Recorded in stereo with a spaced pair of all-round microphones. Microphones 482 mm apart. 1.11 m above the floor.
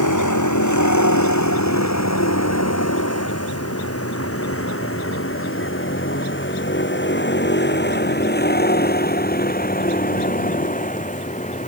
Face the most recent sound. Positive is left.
turn(degrees=15)  # may be behind; listen again after turning